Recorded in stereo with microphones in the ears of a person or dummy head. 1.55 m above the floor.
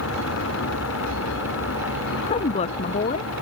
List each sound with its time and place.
0.0 s a vehicle: 80° left; by 3.4 s 85° left
2.3 s a woman speaking: 35° left (ahead or behind)